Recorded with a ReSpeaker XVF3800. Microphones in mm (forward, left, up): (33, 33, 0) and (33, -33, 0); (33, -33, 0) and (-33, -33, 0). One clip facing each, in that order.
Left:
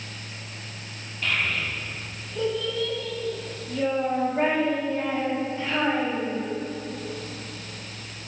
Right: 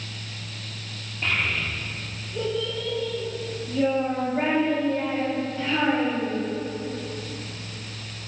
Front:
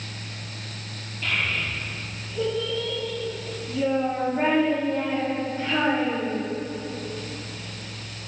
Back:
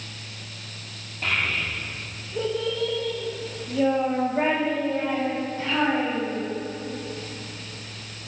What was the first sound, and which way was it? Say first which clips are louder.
A child speaking: even, back 1 dB; 150° right.